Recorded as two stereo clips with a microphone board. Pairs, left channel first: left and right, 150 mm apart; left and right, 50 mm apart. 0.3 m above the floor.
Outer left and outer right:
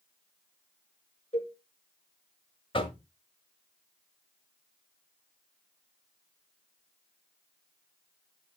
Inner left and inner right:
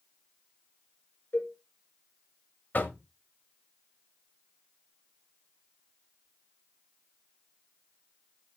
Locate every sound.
1.3 s a cowbell: 40° left (ahead or behind), 5 m
2.7 s knocking: 35° left (ahead or behind), 1.5 m